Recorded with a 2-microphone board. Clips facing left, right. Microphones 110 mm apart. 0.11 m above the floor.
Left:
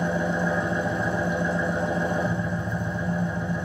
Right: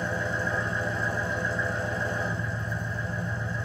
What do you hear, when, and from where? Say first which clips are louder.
0.0 s an engine running: left 5 dB; 60° left (ahead or behind), 1.7 m